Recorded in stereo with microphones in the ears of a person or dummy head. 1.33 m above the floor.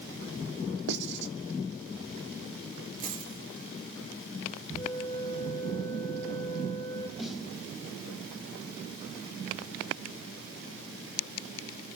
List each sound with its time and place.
0.9 s writing: 70° right (ahead or behind), 2.5 m
3.0 s a dropped coin: 35° right (ahead or behind), 5.5 m
4.8 s a flute: 30° left (ahead or behind), 4.5 m
7.2 s a snare drum: 10° right (ahead or behind), 4 m